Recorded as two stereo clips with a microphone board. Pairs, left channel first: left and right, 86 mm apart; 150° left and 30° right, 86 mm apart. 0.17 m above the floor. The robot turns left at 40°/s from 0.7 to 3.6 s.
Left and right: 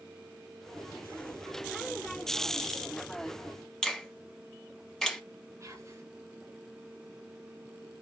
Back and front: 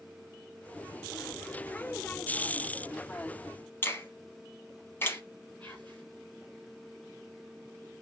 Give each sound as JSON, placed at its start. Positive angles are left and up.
{"t": 3.8, "sound": "a finger snap", "azimuth_deg": 165, "distance_m": 1.0}
{"t": 5.6, "sound": "whispering", "azimuth_deg": -140, "distance_m": 2.5}